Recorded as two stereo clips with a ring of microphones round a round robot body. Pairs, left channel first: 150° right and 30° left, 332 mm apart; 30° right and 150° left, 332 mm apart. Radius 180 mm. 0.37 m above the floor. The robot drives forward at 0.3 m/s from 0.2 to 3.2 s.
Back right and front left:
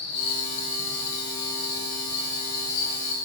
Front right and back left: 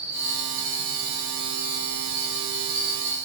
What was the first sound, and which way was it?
An insect, 140° right.